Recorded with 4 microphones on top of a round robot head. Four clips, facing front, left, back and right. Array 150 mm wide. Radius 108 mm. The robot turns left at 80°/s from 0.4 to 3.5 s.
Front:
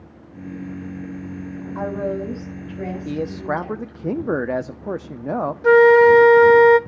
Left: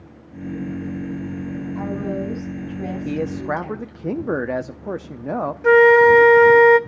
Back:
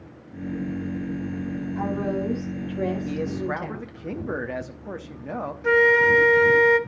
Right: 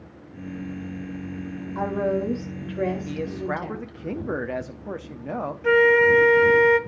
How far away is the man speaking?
About 0.7 m.